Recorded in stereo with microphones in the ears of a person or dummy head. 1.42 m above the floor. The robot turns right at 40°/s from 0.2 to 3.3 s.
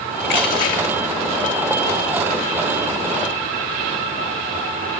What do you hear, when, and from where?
0.2 s crushing: 50° left (ahead or behind), 2 m; by 0.9 s 30° left (ahead or behind), 2 m